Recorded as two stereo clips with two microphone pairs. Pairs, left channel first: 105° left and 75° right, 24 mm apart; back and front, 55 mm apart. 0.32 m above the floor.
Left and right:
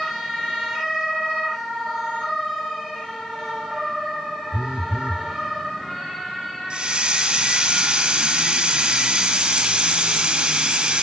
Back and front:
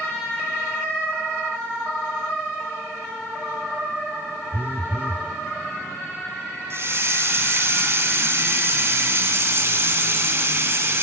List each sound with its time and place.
4.5 s a phone buzzing: 50° right, 0.6 m
6.7 s a hiss: 40° right, 2 m